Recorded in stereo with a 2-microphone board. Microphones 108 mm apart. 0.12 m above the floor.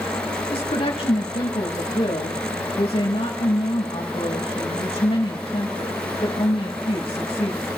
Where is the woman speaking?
60° left (ahead or behind), 5 m.